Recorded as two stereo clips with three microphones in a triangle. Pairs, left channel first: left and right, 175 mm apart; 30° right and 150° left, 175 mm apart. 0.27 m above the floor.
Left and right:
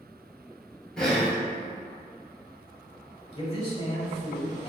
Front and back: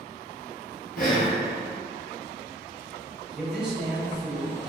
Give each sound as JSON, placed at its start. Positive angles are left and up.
{"t": 1.0, "sound": "breathing", "azimuth_deg": 5, "distance_m": 1.1}
{"t": 3.3, "sound": "a man speaking", "azimuth_deg": 70, "distance_m": 1.3}